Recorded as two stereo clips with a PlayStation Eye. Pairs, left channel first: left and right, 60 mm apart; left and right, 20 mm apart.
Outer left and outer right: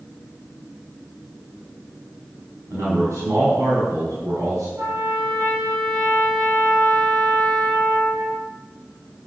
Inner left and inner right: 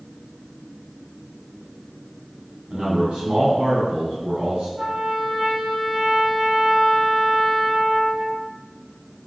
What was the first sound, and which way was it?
A man speaking, 55° right (ahead or behind).